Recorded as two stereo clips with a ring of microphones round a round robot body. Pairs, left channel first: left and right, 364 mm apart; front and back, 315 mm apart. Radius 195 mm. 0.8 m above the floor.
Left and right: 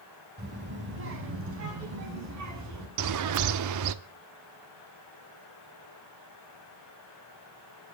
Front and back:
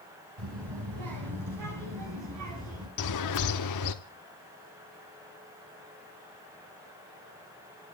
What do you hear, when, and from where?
0.4 s a child speaking: 155° right, 5.5 m; by 2.9 s 135° right, 6 m
3.0 s a bird: 45° right, 0.8 m